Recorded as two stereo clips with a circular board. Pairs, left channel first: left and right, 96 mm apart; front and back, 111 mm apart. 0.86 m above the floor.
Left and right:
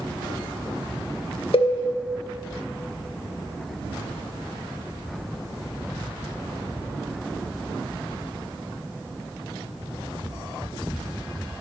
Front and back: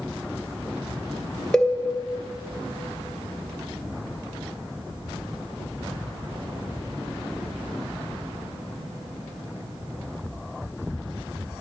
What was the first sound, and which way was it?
A cowbell, 85° left.